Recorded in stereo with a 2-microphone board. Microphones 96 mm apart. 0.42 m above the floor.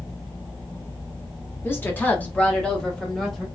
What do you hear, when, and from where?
1.6 s a woman speaking: 20° left (ahead or behind), 0.9 m; by 3.5 s centre (ahead or behind), 1.2 m